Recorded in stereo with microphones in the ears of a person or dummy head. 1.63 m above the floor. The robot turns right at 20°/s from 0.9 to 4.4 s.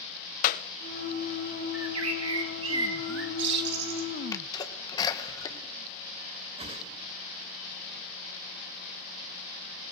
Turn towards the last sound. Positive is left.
turn(degrees=-35)  # may be behind; listen again after turning